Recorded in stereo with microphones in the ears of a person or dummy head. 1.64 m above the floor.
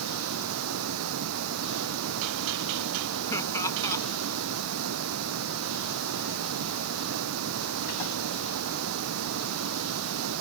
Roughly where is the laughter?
Centre.